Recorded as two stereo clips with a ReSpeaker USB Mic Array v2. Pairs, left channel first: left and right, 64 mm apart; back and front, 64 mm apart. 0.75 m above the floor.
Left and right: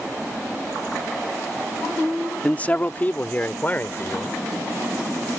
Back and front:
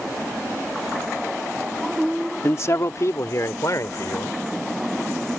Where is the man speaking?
150° left.